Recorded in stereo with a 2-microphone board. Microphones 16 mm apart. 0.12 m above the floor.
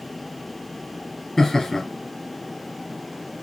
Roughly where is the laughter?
Left.